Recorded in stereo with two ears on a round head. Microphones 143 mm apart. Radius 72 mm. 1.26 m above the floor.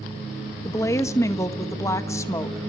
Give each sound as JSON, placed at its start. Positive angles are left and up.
{"t": 0.7, "sound": "a woman speaking", "side_deg": 20, "distance_m": 1.6}